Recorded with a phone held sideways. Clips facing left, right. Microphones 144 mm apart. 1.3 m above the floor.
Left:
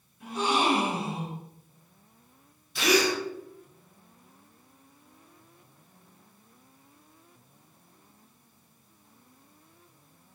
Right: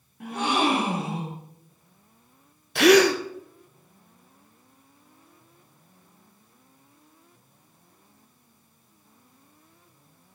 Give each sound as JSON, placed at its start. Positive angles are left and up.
{"t": 0.2, "sound": "a gasp", "side_deg": -65, "distance_m": 2.0}
{"t": 2.8, "sound": "a gasp", "side_deg": -65, "distance_m": 0.7}